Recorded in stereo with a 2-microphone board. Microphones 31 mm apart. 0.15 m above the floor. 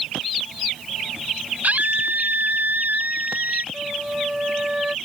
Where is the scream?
55° right (ahead or behind); by 3.6 s 75° right (ahead or behind).